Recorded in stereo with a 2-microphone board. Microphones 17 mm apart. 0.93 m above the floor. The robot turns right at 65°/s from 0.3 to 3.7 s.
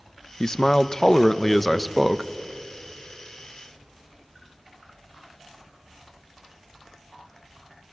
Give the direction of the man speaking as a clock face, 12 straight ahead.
10 o'clock.